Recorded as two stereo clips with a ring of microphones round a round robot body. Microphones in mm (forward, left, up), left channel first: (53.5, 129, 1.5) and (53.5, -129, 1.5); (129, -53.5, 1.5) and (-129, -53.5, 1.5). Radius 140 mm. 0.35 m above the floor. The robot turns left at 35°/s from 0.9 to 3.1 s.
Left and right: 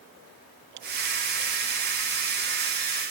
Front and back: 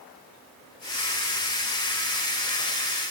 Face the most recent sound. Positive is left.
No sound to turn to.